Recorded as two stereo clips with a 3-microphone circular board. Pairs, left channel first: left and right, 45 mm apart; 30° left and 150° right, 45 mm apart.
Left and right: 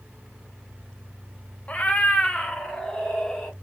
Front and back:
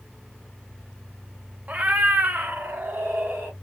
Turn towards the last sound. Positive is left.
turn(degrees=170)